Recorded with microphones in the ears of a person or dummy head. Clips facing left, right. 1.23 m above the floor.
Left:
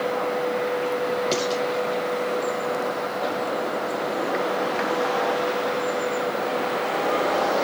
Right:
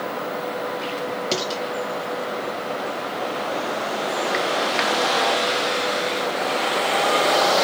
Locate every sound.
1.3 s dishes clattering: 10° right (ahead or behind), 1.8 m